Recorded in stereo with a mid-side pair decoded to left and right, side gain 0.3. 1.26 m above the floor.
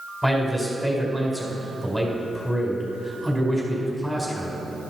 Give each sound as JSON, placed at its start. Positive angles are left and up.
{"t": 0.2, "sound": "a man speaking", "azimuth_deg": 10, "distance_m": 4.5}